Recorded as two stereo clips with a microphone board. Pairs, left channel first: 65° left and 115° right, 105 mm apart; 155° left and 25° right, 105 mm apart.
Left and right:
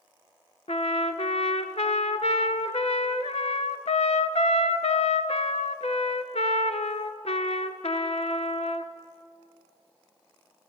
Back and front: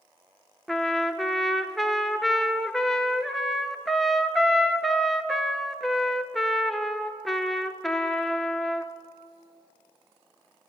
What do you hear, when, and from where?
0.7 s a trumpet: 70° left, 0.5 m